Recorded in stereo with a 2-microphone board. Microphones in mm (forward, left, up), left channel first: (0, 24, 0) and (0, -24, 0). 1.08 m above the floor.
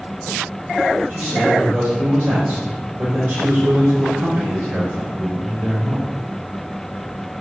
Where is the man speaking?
50° right (ahead or behind), 3.5 m.